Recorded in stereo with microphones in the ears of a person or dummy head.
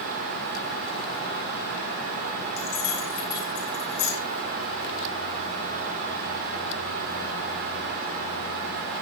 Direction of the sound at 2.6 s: 85° left.